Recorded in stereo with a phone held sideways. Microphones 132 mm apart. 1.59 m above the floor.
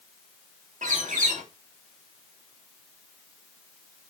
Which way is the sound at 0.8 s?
75° right (ahead or behind).